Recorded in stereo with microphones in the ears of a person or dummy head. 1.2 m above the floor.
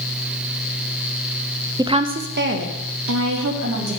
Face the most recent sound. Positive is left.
turn(degrees=-75)  # may be behind; listen again after turning